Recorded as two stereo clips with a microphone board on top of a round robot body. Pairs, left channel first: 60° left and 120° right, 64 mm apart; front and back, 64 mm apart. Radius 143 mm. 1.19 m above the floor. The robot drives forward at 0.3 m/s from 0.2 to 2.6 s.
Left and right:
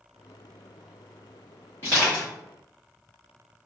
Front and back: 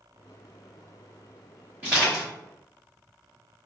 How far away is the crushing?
About 0.8 m.